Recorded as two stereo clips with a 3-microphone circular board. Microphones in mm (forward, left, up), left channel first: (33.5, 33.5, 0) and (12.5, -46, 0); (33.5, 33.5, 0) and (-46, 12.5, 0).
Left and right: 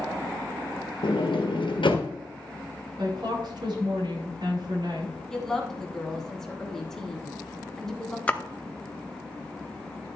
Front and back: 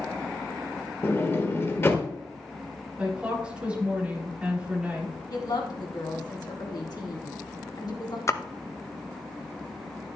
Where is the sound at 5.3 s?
10° right, 2.5 m.